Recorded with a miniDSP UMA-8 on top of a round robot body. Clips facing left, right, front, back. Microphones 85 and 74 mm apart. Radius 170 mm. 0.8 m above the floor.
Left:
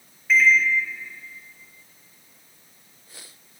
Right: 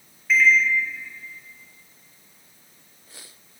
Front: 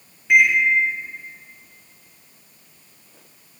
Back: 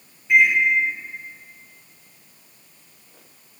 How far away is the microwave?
About 0.6 m.